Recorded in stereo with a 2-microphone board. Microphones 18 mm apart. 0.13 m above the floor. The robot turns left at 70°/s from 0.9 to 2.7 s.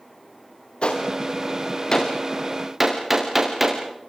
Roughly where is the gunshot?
Left.